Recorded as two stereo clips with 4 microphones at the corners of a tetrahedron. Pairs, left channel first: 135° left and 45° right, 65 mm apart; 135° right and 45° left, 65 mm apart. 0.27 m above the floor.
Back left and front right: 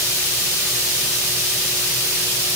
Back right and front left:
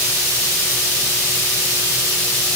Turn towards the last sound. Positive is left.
No sound to turn to.